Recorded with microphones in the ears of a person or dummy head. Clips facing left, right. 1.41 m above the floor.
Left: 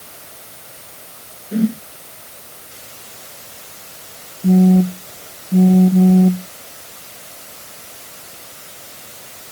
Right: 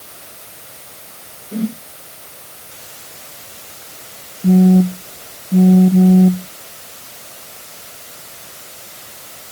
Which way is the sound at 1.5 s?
20° left (ahead or behind).